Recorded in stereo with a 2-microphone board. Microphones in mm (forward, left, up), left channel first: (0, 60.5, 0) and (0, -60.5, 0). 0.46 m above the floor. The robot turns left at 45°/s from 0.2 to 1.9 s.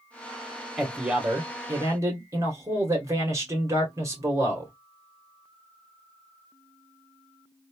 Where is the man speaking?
5° right, 1.2 m; by 4.7 s 55° right, 1.2 m.